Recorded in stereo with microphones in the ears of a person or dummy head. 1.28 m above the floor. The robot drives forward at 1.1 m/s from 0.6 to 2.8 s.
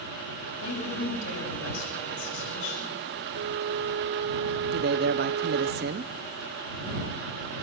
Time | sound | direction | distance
0.6 | a woman speaking | 85° left | 7 m
3.4 | a flute | 60° right (ahead or behind) | 0.8 m
4.7 | a man speaking | 50° right (ahead or behind) | 0.7 m